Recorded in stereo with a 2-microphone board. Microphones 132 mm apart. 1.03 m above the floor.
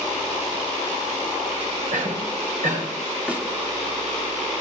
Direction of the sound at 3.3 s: 10° right (ahead or behind).